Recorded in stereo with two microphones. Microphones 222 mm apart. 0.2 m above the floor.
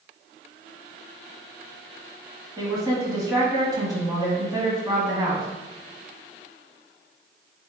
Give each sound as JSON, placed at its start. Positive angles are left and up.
{"t": 2.6, "sound": "a woman speaking", "side_deg": -20, "distance_m": 1.1}